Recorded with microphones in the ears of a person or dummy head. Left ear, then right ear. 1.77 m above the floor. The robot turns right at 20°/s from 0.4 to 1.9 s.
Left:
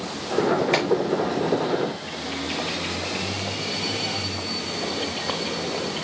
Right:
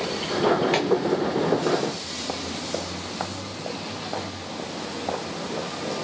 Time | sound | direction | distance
0.7 | a clap | 10° left (ahead or behind) | 2.5 m